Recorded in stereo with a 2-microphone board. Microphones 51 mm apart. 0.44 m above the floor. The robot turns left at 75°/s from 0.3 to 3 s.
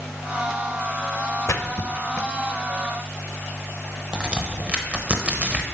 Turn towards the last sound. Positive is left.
turn(degrees=-20)  # may be behind; listen again after turning